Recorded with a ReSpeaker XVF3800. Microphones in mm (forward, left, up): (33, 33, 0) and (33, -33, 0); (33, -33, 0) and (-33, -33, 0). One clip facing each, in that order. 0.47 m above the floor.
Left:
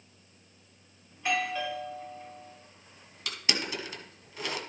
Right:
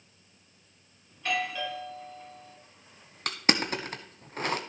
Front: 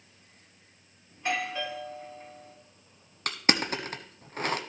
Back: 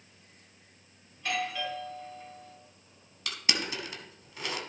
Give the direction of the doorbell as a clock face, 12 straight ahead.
11 o'clock.